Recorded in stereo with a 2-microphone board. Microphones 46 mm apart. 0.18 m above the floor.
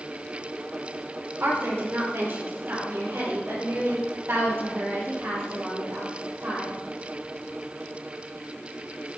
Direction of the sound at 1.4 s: 55° right (ahead or behind).